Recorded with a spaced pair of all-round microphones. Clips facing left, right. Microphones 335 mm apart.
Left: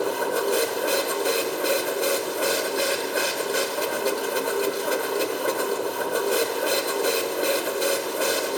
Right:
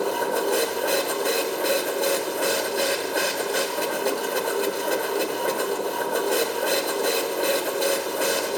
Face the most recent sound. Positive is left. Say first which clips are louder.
# even
turn(degrees=5)  # may be behind; listen again after turning